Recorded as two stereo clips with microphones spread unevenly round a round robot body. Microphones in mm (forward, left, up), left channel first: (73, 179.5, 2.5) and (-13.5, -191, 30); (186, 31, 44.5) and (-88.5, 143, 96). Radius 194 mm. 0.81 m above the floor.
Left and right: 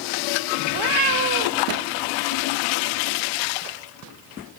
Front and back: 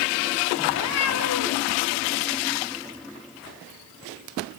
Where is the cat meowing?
75° right, 1.5 m.